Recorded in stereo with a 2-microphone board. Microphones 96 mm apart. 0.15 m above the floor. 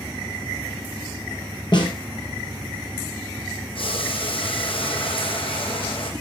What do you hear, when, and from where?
1.7 s a snare drum: 50° left (ahead or behind), 4.5 m
3.8 s boiling: 70° left (ahead or behind), 2.5 m